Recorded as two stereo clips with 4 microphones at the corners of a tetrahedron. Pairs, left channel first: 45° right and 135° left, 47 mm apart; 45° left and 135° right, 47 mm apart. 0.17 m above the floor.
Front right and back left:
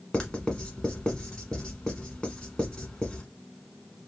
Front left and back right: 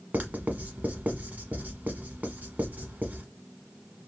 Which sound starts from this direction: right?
Writing, at 0.1 s.